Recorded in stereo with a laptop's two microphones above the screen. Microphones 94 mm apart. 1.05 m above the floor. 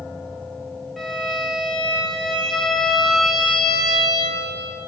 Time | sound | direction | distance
1.0 | a violin | centre (ahead or behind) | 1.1 m